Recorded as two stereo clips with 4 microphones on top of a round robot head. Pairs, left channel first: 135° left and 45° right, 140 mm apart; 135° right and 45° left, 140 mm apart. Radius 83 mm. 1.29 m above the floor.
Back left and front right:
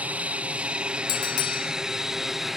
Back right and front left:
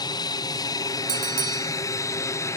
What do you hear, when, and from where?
0.0 s an aircraft: 115° right; by 2.6 s 130° right
1.1 s a bell: 105° left